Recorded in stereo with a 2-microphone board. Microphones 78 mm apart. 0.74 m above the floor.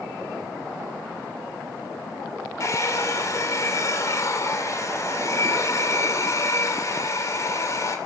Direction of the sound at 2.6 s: 40° left (ahead or behind).